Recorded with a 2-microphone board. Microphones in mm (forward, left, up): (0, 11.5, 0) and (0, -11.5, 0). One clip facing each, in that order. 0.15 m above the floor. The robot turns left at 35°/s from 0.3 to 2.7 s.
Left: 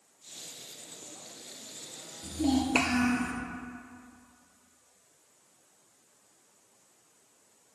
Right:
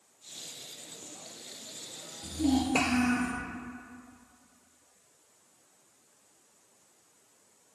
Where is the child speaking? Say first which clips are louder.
Even; centre (ahead or behind), 1.6 m; by 3.3 s 15° left (ahead or behind), 1.6 m.